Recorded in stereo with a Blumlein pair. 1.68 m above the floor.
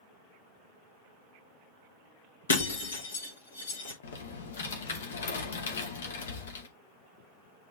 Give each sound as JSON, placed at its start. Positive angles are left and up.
{"t": 2.5, "sound": "breaking glass", "azimuth_deg": 70, "distance_m": 2.5}
{"t": 4.0, "sound": "typing on a keyboard", "azimuth_deg": 65, "distance_m": 2.0}